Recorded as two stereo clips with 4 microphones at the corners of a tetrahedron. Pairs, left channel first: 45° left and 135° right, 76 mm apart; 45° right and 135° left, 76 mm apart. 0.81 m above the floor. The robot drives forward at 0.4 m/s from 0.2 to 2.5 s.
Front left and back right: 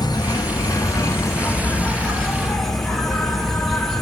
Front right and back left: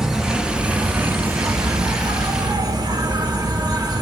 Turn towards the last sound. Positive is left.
turn(degrees=135)